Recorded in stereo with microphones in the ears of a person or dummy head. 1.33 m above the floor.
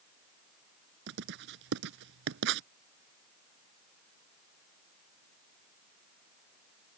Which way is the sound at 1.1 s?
70° right (ahead or behind).